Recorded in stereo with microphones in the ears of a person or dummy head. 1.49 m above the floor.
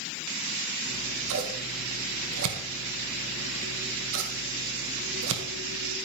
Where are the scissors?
75° right (ahead or behind), 1.8 m.